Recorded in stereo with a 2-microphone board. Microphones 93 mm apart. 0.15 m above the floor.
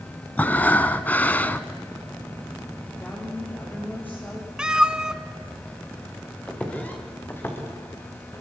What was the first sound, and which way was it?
Breathing, 20° left (ahead or behind).